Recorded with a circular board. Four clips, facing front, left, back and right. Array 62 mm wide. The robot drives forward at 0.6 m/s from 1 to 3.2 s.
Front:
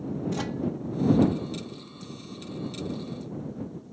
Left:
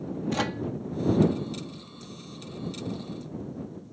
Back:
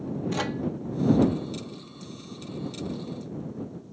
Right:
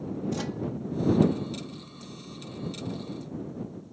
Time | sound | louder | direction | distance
0.3 | a microwave | left 6 dB, back 4 dB | 120° left | ?